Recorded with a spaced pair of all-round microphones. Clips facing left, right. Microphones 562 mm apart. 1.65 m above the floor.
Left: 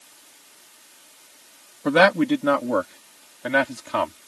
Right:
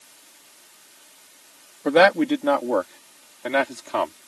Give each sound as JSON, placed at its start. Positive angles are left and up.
{"t": 1.9, "sound": "a man speaking", "side_deg": 30}